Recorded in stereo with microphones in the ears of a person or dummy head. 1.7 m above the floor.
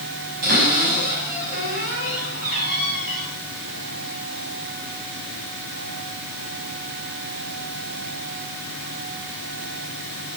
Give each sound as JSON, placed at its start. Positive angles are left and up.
{"t": 0.4, "sound": "a cupboard door", "side_deg": -50, "distance_m": 6.5}